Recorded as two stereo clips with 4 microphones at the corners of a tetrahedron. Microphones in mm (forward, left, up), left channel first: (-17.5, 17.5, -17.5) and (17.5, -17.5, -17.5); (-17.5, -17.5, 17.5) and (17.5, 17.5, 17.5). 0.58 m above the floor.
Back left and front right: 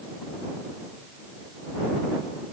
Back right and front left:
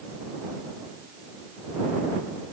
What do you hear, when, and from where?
Only background noise.